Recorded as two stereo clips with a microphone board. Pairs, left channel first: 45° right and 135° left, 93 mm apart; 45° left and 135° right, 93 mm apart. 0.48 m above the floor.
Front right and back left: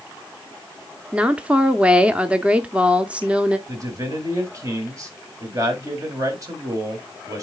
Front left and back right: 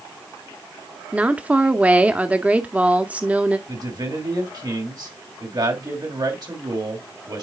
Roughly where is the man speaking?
Behind.